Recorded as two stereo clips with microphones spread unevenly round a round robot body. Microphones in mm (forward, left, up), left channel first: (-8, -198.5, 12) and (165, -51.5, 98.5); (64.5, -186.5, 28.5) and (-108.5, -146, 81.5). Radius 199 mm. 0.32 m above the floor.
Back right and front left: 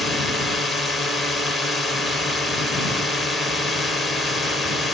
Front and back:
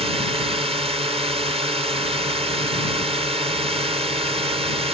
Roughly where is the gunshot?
I don't hear a gunshot.